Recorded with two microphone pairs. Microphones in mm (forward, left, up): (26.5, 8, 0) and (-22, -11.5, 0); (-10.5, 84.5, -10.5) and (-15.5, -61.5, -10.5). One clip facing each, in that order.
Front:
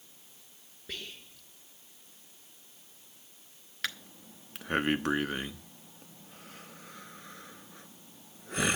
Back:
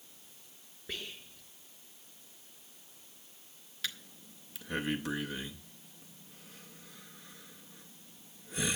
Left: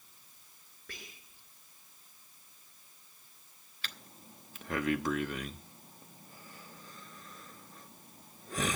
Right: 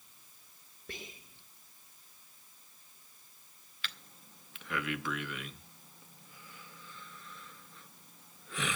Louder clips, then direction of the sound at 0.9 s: Even, right 5 dB; 85° right.